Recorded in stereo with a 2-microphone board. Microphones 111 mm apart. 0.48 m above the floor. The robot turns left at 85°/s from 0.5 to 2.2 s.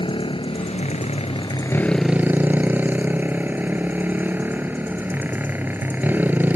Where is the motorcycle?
130° left; by 6.6 s 15° right.